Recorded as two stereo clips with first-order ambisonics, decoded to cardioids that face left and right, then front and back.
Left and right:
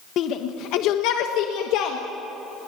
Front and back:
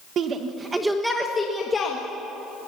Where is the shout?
130° left, 1.3 m; by 2.0 s 65° left, 1.9 m.